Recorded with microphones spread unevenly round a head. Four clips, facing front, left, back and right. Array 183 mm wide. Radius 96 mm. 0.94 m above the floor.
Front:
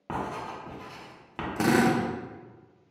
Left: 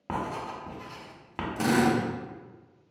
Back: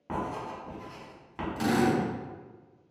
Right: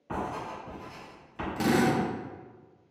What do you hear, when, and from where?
0.1 s writing: 55° left, 1.3 m
1.6 s a drill: straight ahead, 0.7 m